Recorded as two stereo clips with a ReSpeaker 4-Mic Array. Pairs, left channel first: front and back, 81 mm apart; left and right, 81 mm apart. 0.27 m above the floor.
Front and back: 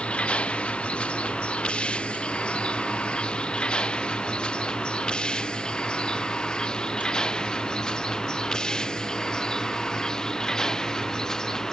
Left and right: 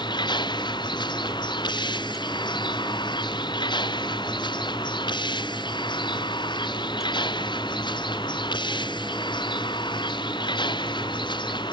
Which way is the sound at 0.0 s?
75° left.